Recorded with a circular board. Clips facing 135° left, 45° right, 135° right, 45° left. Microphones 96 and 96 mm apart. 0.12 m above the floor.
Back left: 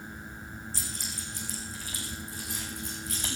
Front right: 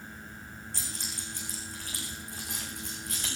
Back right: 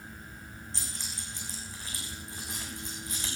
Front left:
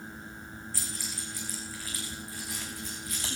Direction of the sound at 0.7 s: 70° right.